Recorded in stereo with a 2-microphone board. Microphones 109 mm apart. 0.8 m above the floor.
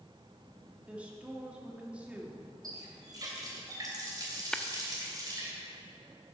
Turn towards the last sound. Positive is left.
turn(degrees=5)  # may be behind; listen again after turning